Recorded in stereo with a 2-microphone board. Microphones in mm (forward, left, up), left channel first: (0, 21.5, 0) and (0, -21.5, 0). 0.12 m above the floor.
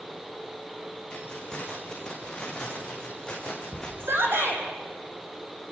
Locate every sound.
1.1 s keys jangling: 20° left (ahead or behind), 5.5 m
4.0 s a shout: 55° right (ahead or behind), 4.5 m